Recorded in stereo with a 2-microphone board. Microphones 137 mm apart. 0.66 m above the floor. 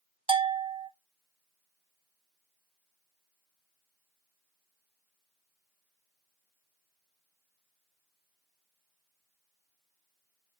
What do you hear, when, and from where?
0.3 s a bell: 40° right (ahead or behind), 0.6 m